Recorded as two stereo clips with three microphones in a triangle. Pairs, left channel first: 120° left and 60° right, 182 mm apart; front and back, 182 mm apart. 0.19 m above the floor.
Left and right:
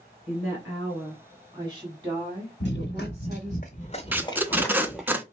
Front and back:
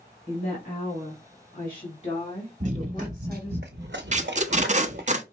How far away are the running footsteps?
About 1.1 m.